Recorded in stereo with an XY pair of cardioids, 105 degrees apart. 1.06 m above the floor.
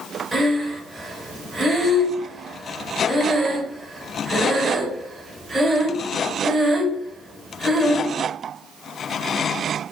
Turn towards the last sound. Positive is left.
turn(degrees=-15)